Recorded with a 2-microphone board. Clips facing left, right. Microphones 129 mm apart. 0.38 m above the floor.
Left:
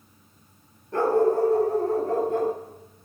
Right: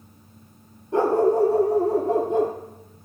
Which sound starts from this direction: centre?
A dog barking, at 0.9 s.